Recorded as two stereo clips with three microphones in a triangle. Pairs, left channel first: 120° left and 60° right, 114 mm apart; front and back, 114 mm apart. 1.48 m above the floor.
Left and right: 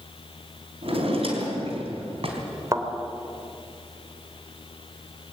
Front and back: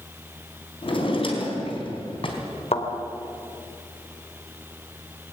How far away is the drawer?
About 4 m.